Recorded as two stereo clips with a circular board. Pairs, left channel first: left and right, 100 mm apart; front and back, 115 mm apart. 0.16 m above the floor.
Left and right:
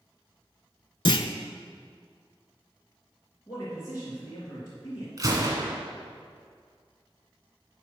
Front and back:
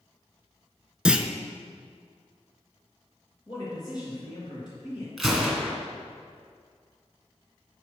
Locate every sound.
1.1 s a clunk: 100° left, 0.5 m
3.5 s a man speaking: 40° left, 3 m
5.2 s a gunshot: 90° right, 1.8 m